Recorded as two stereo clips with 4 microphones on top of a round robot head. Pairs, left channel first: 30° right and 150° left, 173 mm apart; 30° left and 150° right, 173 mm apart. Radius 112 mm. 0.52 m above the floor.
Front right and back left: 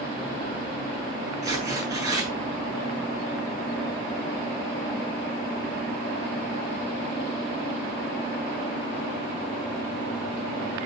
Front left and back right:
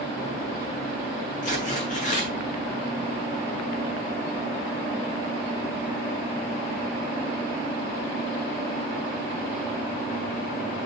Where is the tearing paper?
75° left, 8.5 m.